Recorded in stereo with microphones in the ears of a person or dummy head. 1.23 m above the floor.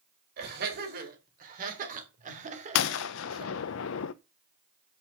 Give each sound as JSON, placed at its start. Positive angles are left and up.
{"t": 0.4, "sound": "laughter", "side_deg": -60, "distance_m": 4.5}
{"t": 2.8, "sound": "a gunshot", "side_deg": 75, "distance_m": 0.6}